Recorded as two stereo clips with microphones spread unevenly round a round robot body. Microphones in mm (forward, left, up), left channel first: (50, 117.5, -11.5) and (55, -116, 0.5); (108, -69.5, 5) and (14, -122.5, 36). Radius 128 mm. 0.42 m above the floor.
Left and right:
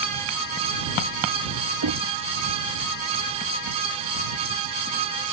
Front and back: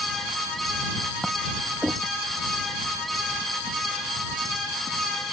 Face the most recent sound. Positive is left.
turn(degrees=-75)